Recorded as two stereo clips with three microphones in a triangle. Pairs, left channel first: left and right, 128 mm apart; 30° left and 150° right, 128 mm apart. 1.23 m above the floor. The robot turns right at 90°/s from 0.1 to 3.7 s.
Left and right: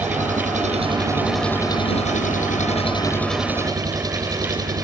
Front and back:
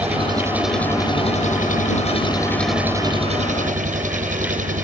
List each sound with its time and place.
0.0 s an engine running: 115° right; by 4.9 s 150° right